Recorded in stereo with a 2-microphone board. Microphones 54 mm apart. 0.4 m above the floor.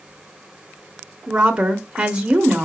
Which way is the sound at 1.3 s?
20° right (ahead or behind).